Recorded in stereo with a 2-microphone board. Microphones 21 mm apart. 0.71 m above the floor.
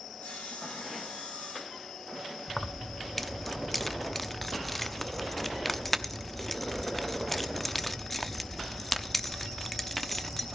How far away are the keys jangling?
About 0.7 m.